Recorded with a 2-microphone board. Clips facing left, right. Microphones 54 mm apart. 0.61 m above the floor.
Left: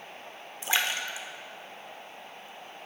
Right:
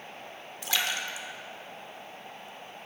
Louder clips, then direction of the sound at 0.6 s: Left 2 dB; 30° left (ahead or behind).